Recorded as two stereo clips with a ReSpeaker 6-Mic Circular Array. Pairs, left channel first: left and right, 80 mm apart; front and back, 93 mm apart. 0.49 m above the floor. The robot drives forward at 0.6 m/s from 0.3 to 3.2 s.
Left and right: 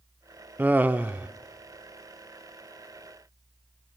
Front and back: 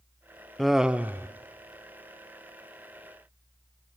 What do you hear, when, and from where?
0.6 s laughter: 80° right, 0.7 m; by 1.3 s 145° right, 0.8 m